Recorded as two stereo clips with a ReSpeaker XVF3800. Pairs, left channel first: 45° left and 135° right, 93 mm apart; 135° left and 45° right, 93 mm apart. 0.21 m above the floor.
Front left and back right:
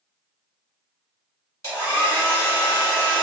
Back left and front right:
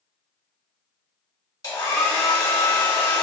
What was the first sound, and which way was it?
A hair dryer, 95° left.